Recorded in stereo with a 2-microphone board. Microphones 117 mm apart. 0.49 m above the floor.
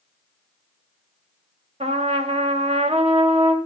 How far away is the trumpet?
About 2.5 m.